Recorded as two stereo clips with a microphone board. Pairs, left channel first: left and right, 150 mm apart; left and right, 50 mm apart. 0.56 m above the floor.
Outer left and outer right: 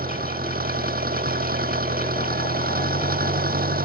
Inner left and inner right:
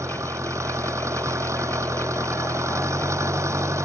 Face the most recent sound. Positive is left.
turn(degrees=-80)